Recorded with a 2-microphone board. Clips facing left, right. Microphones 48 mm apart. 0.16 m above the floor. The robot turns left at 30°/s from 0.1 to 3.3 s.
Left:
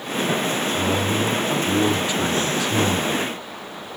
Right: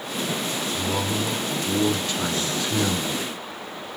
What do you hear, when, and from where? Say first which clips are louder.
0.7 s a man speaking: left 2 dB; 60° left, 1.5 m; by 3.2 s 15° right, 1.5 m